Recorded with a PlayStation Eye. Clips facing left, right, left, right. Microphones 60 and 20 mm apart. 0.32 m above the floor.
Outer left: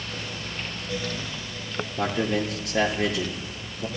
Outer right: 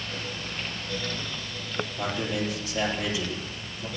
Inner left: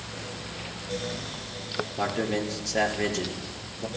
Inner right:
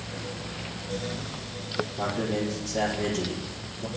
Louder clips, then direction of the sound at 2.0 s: Outer left 6 dB, inner left 2 dB; 70° left (ahead or behind).